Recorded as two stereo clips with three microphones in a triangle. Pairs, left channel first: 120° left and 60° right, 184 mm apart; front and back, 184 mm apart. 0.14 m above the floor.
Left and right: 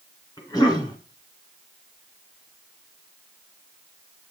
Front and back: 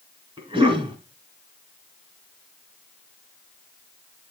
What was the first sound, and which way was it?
A cough, 160° left.